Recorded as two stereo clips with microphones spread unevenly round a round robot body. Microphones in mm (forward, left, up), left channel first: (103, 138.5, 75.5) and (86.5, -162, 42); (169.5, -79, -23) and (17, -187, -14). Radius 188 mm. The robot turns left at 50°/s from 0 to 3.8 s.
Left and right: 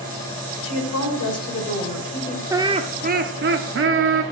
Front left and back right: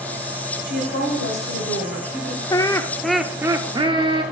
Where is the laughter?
20° right, 0.9 m; by 4.2 s 85° right, 0.9 m.